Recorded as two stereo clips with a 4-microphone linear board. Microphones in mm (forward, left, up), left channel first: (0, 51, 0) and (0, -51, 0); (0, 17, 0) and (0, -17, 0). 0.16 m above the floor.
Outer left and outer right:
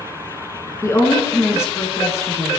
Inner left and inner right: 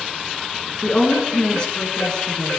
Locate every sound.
0.8 s a woman speaking: 25° left (ahead or behind), 2.0 m